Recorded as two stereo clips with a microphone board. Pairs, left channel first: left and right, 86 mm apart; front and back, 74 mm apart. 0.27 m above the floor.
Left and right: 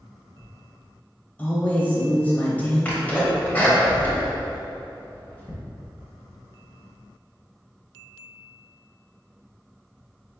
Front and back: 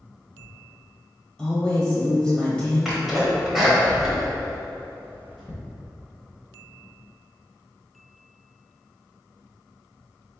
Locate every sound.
1.4 s a woman speaking: 55° left, 0.9 m
2.9 s a sneeze: 100° left, 0.9 m